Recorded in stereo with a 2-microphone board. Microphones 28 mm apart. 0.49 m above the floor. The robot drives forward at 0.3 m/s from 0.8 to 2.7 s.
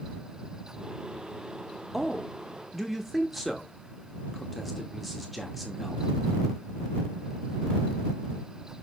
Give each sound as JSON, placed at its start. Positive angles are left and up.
{"t": 1.9, "sound": "a man speaking", "side_deg": 0, "distance_m": 0.7}